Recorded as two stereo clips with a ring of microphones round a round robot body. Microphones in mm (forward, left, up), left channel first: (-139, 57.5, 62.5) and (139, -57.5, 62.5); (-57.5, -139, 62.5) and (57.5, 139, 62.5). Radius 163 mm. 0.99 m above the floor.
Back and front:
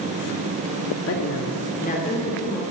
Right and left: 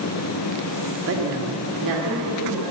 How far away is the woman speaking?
About 1.9 m.